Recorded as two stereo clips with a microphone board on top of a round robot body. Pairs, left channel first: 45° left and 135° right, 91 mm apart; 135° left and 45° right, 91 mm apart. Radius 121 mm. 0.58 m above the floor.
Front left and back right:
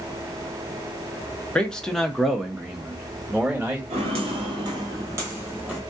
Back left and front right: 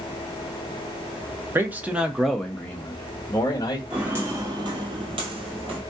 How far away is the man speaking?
About 1.0 m.